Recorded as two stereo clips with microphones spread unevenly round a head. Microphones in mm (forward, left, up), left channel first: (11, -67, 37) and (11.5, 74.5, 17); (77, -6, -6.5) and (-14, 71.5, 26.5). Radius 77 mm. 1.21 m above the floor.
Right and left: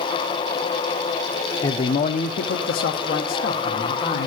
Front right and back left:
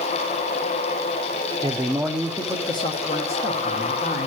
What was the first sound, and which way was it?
A man speaking, 145° right.